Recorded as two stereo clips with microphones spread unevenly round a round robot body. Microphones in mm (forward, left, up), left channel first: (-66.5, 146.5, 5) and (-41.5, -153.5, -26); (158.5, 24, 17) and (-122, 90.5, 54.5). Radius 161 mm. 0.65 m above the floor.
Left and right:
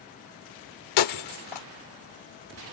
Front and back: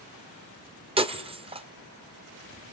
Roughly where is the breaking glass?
Left.